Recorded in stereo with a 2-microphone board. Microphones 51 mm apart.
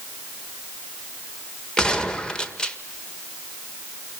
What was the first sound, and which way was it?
A gunshot, 15° left (ahead or behind).